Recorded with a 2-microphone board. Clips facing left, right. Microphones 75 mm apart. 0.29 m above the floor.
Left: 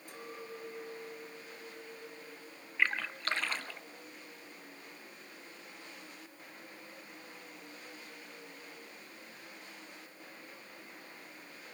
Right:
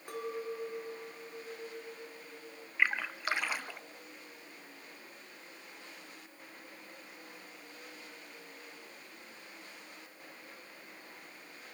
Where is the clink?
60° right (ahead or behind), 3 m.